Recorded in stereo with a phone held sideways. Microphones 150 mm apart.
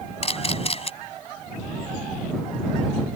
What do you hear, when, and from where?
0.2 s a camera shutter: 45° left (ahead or behind)